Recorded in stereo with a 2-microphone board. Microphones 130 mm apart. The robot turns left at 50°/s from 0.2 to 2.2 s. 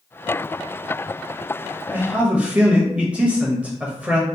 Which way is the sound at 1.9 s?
15° right (ahead or behind).